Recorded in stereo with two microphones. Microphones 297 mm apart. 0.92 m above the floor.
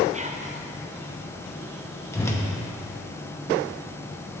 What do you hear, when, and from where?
0.1 s whispering: 25° right (ahead or behind), 0.6 m
2.1 s a whoosh: 10° left (ahead or behind), 0.9 m